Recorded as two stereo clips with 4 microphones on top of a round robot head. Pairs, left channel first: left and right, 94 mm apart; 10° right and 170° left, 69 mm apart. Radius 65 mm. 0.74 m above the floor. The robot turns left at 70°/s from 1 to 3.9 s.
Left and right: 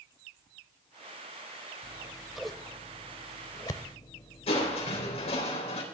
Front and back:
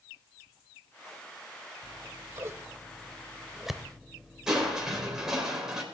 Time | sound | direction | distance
1.8 | scissors | 140° right | 0.5 m
4.5 | crushing | 90° left | 3.5 m